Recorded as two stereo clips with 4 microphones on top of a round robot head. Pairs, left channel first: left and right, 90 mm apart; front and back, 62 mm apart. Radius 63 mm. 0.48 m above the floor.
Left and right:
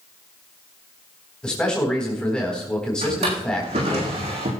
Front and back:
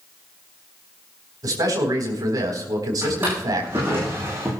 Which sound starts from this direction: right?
A drawer, at 3.0 s.